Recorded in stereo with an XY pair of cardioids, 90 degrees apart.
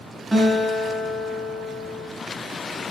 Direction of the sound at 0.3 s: 10° right.